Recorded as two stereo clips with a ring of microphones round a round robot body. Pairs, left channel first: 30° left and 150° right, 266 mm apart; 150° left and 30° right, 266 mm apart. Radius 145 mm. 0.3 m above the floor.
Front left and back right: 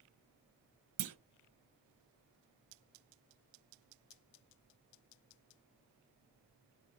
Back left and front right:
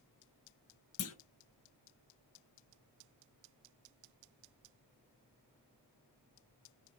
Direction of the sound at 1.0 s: 170° right.